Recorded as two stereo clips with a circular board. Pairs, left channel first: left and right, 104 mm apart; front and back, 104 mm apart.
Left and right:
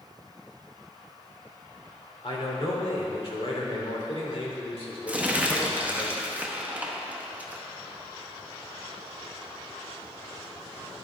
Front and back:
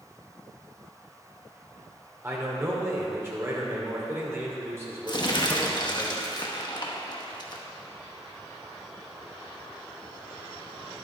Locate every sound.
2.2 s a man speaking: 115° left, 2 m
5.1 s crumpling: 20° right, 0.9 m